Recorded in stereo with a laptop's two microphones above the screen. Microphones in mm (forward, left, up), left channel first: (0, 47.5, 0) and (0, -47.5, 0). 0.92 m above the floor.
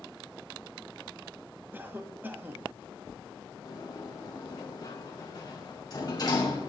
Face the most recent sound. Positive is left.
turn(degrees=40)  # may be behind; listen again after turning